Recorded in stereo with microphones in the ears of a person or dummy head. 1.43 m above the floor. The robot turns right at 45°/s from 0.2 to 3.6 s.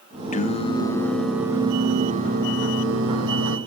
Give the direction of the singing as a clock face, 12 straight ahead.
8 o'clock.